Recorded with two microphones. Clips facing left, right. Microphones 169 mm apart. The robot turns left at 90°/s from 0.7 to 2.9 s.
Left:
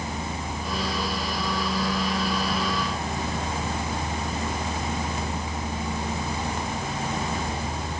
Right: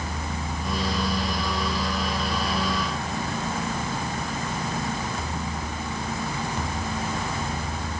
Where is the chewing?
I don't hear chewing.